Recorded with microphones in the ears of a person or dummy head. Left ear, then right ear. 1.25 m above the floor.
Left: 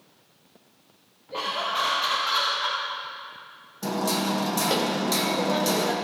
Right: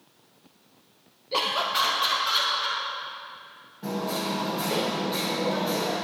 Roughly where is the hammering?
Left.